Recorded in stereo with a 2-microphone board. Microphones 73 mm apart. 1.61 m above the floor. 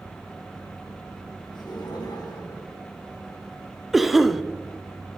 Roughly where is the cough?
Centre.